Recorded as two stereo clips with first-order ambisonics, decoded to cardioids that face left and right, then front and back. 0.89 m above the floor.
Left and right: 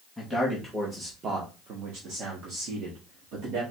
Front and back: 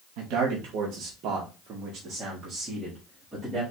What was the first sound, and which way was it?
A man speaking, 175° right.